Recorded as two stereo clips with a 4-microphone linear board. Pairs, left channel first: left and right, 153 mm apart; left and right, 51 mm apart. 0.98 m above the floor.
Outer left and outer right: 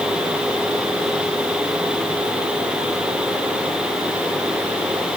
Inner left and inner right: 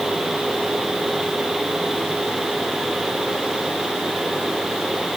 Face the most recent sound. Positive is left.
No sound to turn to.